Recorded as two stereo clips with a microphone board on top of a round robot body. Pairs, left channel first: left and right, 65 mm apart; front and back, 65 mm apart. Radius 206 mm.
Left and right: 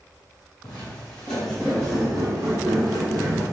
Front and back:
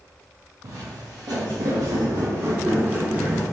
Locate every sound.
0.6 s footsteps: 155° left, 1.2 m; by 3.4 s 100° right, 1.0 m